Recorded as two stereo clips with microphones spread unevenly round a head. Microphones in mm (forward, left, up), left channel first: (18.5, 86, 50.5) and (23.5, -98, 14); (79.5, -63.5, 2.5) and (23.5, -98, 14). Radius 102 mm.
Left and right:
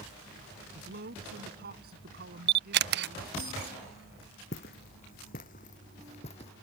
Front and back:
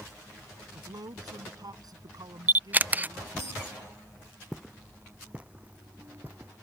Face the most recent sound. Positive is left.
turn(degrees=145)